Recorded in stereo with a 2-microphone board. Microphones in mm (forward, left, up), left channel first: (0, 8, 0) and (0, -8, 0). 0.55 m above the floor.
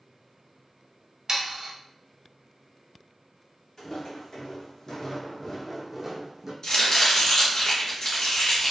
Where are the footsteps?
55° left (ahead or behind), 1.5 m; by 6.5 s 35° right (ahead or behind), 1.0 m.